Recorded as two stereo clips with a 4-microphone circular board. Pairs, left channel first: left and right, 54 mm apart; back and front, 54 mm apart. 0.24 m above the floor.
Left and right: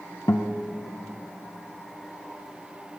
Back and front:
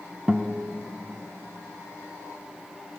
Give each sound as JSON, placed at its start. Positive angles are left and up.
{"t": 0.3, "sound": "a guitar", "azimuth_deg": 75, "distance_m": 0.5}